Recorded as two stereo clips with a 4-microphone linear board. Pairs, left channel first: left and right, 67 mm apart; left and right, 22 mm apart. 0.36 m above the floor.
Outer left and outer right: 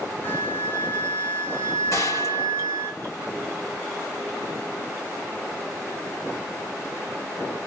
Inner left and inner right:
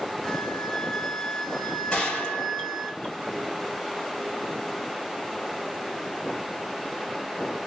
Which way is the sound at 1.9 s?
45° left (ahead or behind).